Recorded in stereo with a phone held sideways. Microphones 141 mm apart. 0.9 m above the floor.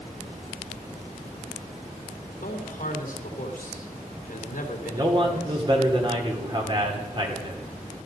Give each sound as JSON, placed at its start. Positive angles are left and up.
{"t": 2.3, "sound": "a man speaking", "side_deg": 75, "distance_m": 2.5}
{"t": 4.9, "sound": "a man speaking", "side_deg": -35, "distance_m": 2.5}